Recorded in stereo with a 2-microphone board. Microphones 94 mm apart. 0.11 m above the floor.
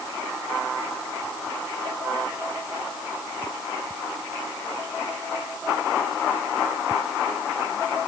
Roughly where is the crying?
No crying in this recording.